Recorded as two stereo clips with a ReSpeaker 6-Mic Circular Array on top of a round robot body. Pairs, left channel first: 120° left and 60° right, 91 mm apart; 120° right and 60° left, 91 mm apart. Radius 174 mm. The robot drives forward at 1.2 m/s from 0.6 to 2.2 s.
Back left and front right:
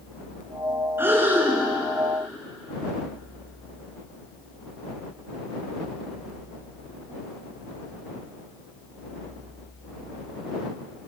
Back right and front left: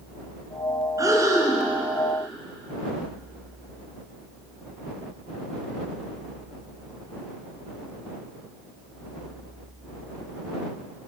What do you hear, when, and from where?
1.0 s breathing: 5° left, 3.5 m; by 1.7 s 10° left, 3 m